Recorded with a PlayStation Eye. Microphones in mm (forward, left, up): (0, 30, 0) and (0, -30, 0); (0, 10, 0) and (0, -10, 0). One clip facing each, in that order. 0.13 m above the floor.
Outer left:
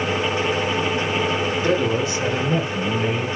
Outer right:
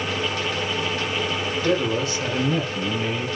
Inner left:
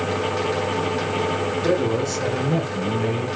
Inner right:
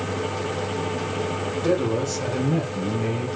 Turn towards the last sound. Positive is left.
turn(degrees=10)  # may be behind; listen again after turning